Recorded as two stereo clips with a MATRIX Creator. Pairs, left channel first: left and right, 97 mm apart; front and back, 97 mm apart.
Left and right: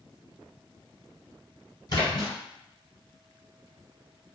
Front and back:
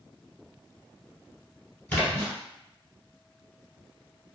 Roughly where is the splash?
Left.